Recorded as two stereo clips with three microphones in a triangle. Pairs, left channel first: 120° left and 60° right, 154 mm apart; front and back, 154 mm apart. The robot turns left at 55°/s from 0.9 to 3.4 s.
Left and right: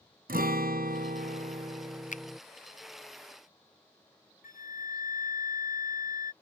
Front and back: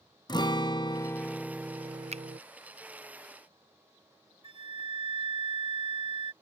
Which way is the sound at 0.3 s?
60° right.